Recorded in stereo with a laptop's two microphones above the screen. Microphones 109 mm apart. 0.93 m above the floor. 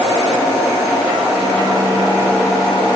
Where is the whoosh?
No whoosh in this recording.